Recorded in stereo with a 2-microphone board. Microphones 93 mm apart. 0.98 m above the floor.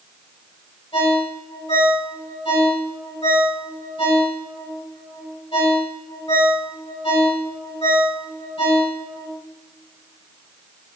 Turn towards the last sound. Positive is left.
turn(degrees=85)